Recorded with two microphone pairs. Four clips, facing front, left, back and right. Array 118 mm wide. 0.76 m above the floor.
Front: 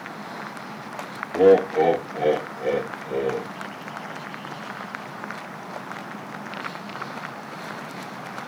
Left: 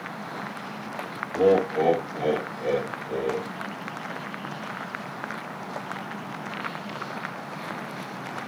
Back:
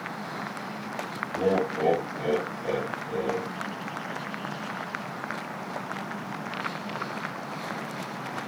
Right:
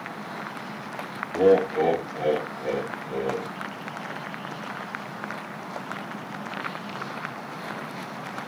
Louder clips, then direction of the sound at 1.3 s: Right 1 dB, front 10 dB; 5° right.